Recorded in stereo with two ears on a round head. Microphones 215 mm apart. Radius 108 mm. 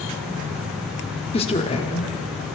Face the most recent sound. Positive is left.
turn(degrees=25)  # may be behind; listen again after turning